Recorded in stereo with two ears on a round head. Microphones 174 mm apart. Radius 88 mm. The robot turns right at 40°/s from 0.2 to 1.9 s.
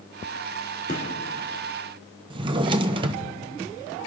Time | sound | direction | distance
0.9 | a gunshot | 40° left (ahead or behind) | 2.5 m
2.3 | a drawer | 25° right (ahead or behind) | 0.7 m